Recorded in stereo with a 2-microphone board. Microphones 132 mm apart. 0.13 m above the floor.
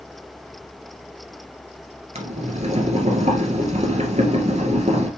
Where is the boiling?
60° right (ahead or behind), 1.5 m.